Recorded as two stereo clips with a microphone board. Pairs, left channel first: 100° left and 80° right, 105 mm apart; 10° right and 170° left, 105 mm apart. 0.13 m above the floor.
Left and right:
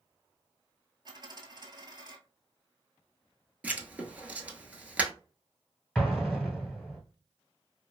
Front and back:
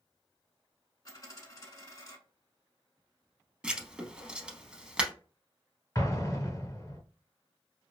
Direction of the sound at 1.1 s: 55° right.